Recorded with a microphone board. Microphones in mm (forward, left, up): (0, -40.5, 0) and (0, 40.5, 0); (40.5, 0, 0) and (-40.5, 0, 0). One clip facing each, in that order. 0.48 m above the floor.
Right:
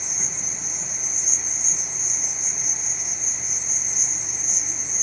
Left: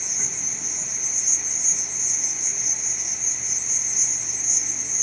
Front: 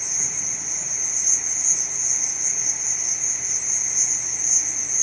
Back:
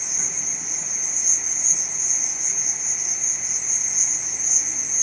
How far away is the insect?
About 1.0 m.